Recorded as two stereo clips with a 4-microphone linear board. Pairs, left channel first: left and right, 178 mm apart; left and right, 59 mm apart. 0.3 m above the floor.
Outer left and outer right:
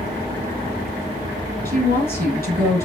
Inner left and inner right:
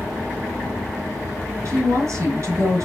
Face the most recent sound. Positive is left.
turn(degrees=-60)  # may be behind; listen again after turning